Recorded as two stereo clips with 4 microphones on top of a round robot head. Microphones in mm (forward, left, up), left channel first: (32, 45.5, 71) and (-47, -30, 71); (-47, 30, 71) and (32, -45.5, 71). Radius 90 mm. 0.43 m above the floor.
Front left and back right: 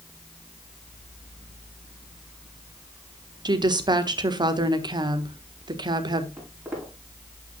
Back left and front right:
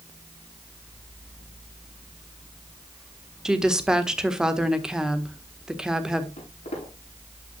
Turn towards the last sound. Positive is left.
turn(degrees=155)